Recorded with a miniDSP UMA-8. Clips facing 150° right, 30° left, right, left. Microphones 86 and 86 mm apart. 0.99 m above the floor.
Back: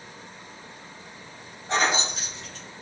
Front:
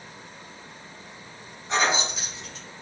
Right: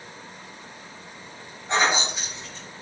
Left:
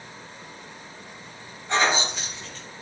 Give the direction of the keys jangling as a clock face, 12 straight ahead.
5 o'clock.